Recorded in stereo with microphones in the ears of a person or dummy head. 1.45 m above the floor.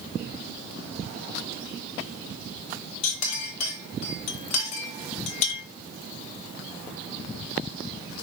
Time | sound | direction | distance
3.0 | a clink | 40° left (ahead or behind) | 0.9 m